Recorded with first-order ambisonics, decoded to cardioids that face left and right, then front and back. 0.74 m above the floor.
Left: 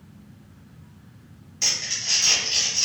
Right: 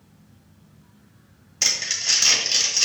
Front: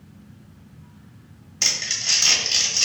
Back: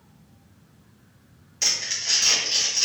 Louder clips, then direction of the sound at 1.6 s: Right 2 dB, front 2 dB; 65° right.